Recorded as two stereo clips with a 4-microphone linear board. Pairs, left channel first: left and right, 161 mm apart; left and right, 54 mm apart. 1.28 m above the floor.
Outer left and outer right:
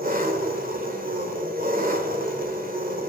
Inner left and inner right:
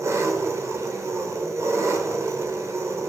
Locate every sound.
0.0 s an engine running: 60° right (ahead or behind), 2 m